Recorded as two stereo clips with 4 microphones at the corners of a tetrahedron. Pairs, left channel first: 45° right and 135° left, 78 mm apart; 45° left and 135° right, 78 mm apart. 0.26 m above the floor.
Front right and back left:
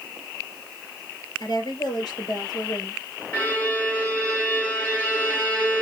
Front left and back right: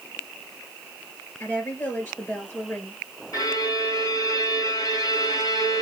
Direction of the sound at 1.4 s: 10° right.